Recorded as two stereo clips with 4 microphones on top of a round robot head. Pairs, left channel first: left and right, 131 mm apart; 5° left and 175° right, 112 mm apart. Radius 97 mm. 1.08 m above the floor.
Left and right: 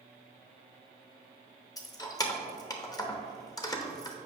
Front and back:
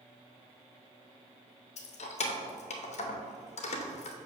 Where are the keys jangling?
25° left, 0.8 m.